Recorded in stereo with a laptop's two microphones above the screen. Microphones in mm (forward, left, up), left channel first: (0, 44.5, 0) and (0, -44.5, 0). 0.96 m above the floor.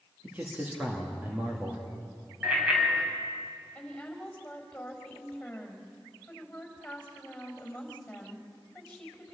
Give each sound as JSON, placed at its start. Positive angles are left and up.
{"t": 0.2, "sound": "a man speaking", "side_deg": -20, "distance_m": 1.8}
{"t": 2.4, "sound": "a bicycle bell", "side_deg": -10, "distance_m": 5.0}
{"t": 3.8, "sound": "a woman speaking", "side_deg": 10, "distance_m": 5.5}